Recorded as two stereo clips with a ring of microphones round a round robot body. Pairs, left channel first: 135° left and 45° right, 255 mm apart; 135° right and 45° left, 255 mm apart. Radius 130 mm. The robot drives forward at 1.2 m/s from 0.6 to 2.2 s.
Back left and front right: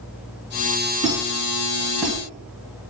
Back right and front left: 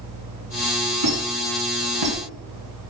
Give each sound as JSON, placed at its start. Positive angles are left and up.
{"t": 1.0, "sound": "a squeak", "azimuth_deg": 30, "distance_m": 3.5}